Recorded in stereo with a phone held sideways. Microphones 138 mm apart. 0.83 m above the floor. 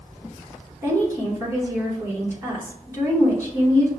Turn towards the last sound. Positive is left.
turn(degrees=-20)  # may be behind; listen again after turning